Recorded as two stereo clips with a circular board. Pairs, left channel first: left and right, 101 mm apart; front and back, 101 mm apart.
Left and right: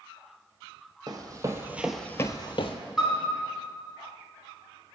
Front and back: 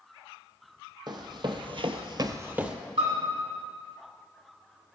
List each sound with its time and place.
1.1 s running footsteps: 135° right, 1.1 m; by 2.8 s 100° left, 0.7 m
3.0 s a piano: 175° right, 2 m